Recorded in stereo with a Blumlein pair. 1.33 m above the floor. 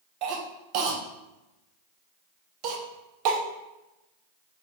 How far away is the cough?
About 0.9 m.